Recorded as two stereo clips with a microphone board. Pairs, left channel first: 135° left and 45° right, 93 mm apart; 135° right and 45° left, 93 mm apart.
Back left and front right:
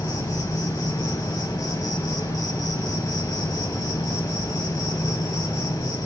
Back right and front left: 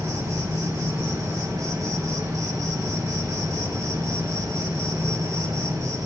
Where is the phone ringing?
No phone ringing in this recording.